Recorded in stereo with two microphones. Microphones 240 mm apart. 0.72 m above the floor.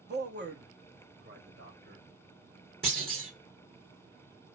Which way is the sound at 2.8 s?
60° right (ahead or behind).